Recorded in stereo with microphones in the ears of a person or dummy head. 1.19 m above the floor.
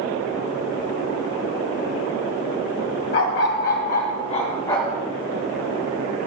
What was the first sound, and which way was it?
A dog barking, 55° left (ahead or behind).